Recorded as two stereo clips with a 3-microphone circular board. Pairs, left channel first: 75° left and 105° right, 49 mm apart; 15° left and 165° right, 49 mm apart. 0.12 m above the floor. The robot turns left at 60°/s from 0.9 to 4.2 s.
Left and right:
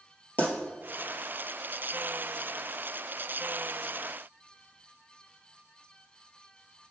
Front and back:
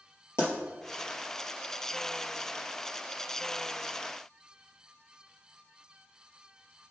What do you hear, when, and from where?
0.4 s a pop: 30° left, 2.5 m